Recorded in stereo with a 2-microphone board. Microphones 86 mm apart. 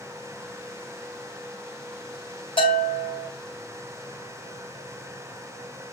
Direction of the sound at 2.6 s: 70° left (ahead or behind).